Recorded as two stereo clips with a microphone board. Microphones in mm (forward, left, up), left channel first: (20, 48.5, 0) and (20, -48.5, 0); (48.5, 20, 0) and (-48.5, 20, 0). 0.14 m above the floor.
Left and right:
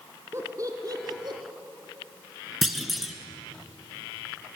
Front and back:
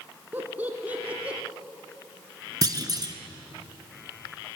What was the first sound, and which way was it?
Laughter, 125° right.